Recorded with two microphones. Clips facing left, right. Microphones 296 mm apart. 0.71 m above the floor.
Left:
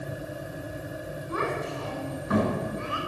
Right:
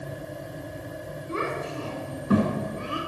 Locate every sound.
1.3 s a child speaking: 25° right (ahead or behind), 4 m; by 3.0 s 40° right (ahead or behind), 5.5 m